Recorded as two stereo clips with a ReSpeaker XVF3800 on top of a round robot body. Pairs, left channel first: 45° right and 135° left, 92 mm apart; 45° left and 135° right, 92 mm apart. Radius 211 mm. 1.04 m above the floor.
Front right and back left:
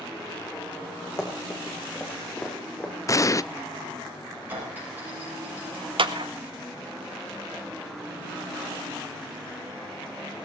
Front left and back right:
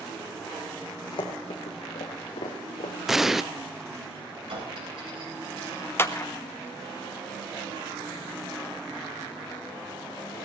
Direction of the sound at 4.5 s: 155° right.